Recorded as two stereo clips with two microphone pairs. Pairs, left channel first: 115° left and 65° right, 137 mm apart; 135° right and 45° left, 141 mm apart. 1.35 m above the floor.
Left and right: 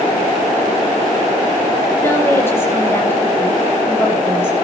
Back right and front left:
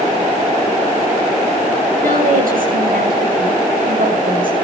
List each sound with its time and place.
2.0 s a woman speaking: 45° left, 7.5 m